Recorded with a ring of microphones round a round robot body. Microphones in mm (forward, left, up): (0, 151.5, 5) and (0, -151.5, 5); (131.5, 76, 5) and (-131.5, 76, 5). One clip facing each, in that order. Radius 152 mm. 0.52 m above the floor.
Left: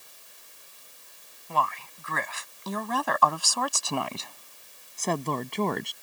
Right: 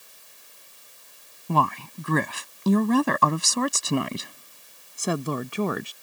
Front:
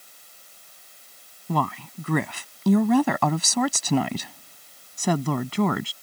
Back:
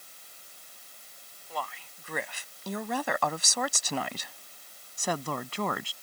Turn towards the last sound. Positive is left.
turn(degrees=-5)